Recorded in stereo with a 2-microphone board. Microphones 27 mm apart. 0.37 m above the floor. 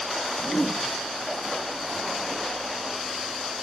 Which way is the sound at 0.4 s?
20° left (ahead or behind).